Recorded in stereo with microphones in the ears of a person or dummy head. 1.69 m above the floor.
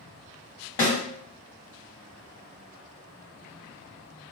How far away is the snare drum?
About 1.9 m.